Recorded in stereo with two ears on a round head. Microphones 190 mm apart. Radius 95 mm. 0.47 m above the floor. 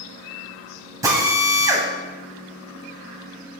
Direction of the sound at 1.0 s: 15° right (ahead or behind).